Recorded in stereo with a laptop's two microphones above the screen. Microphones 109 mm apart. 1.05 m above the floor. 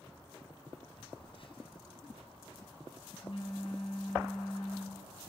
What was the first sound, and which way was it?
A phone buzzing, 55° left (ahead or behind).